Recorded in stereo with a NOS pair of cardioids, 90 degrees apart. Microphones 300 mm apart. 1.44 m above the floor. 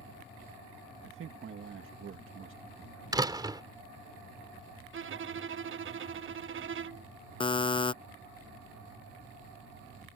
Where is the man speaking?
45° right.